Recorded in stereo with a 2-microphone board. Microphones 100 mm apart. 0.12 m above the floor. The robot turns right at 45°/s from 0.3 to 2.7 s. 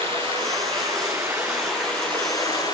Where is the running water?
65° right, 8 m; by 2.8 s 45° left, 8 m.